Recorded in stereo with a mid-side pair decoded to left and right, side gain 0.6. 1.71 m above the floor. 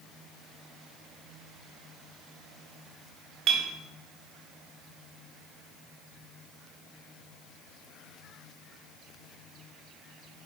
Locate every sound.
3.5 s a clink: 65° right, 2.0 m